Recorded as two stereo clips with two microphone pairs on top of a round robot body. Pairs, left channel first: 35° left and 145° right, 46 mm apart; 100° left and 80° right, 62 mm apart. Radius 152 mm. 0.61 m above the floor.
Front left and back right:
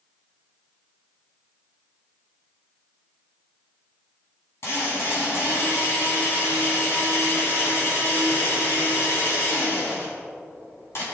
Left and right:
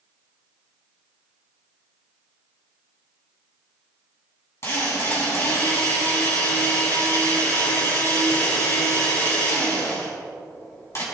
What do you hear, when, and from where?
4.6 s a drill: 60° left, 6 m